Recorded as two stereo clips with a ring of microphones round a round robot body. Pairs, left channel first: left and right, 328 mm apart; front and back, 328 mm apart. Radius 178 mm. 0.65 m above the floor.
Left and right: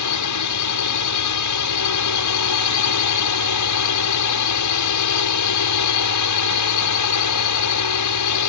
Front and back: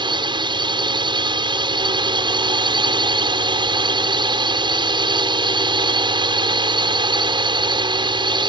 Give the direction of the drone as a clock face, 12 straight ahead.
8 o'clock.